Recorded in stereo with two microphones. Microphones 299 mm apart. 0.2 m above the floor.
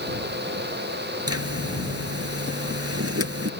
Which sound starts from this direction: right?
A zipper, at 1.3 s.